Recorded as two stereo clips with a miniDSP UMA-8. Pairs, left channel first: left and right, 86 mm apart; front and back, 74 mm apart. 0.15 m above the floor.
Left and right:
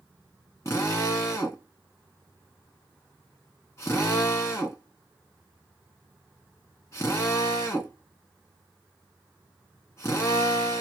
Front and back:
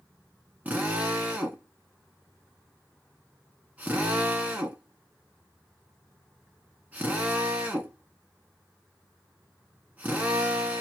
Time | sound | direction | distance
0.7 | a drill | 120° left | 1.6 m